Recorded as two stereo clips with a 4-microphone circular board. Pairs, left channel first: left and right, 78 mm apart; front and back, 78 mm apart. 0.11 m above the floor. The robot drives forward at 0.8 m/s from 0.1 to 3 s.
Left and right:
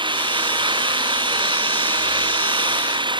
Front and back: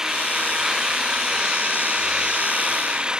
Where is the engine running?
95° right; by 3.2 s 100° right.